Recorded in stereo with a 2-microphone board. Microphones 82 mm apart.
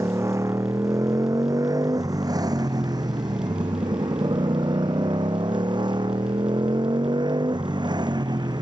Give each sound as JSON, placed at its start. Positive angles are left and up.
{"t": 0.0, "sound": "a motorcycle", "side_deg": -40}